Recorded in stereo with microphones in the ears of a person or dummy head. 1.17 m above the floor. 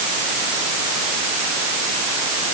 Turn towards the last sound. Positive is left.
No sound to turn to.